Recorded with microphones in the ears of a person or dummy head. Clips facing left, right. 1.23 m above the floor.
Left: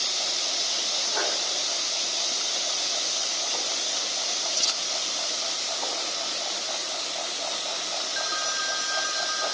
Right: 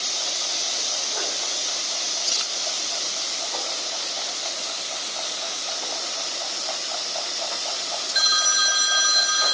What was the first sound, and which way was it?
Only background noise.